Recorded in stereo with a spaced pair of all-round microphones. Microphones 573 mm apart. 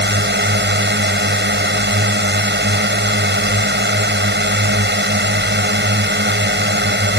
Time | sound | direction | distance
0.0 | a drone | 15° right (ahead or behind) | ?